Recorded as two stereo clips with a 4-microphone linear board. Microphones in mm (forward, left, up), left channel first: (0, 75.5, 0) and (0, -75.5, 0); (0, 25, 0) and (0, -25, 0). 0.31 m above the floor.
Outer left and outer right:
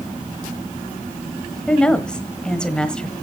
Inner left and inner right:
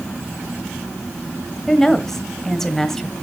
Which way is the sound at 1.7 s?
5° left (ahead or behind).